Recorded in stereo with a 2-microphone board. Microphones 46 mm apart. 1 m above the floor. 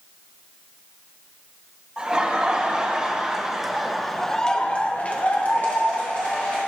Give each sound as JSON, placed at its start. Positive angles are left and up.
{"t": 2.0, "sound": "laughter", "side_deg": -20, "distance_m": 1.9}